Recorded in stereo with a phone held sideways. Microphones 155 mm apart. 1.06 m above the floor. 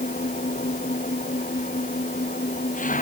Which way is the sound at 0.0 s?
60° left (ahead or behind).